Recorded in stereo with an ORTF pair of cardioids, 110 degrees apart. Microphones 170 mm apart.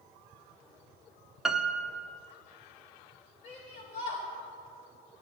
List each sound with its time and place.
1.4 s a piano: 5° right, 0.5 m
3.4 s a shout: 55° left, 1.2 m